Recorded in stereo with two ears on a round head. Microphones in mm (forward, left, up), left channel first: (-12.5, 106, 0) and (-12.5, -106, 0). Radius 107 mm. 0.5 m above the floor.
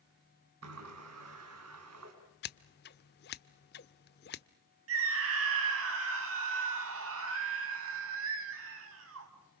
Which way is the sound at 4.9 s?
65° right (ahead or behind).